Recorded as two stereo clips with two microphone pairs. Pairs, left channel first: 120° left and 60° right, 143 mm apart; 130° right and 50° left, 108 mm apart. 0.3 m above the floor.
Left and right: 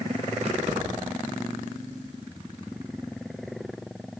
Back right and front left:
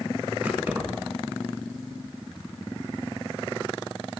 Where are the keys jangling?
25° right, 1.8 m.